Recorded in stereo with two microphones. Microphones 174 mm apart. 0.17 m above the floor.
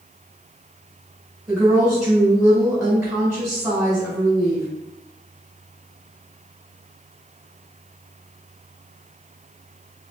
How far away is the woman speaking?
About 1.7 m.